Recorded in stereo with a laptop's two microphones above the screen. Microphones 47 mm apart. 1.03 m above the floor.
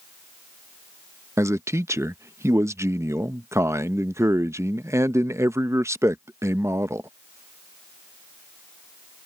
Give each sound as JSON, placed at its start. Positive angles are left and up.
{"t": 1.4, "sound": "a man speaking", "side_deg": -80}